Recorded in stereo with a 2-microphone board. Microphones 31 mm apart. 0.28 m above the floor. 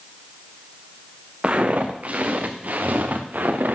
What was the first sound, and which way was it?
Footsteps, 40° right (ahead or behind).